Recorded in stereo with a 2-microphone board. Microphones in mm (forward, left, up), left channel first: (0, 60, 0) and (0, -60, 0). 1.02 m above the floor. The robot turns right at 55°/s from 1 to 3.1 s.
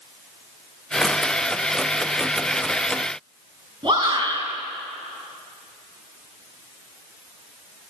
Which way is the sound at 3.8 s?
40° right (ahead or behind).